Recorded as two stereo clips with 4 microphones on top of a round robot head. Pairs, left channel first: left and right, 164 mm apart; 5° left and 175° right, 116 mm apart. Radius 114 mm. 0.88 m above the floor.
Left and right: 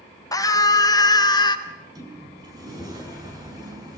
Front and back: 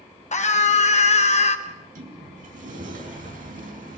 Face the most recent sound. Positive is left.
turn(degrees=-160)